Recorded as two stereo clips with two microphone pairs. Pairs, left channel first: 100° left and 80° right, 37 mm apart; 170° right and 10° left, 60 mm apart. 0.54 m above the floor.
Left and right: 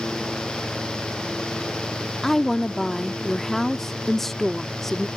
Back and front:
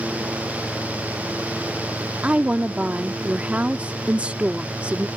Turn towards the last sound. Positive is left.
turn(degrees=30)